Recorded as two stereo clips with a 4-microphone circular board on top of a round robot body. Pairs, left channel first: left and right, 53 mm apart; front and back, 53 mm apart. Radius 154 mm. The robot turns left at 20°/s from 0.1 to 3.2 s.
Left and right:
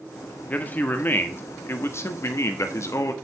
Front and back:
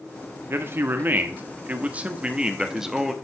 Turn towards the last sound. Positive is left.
turn(degrees=90)